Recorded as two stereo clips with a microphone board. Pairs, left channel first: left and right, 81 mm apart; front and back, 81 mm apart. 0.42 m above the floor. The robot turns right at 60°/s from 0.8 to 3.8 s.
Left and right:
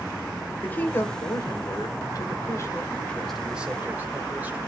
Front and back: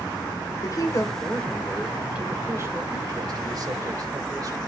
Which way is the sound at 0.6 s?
30° left.